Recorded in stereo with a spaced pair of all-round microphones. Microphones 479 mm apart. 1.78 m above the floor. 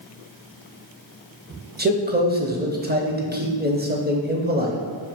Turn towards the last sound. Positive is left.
turn(degrees=-20)  # may be behind; listen again after turning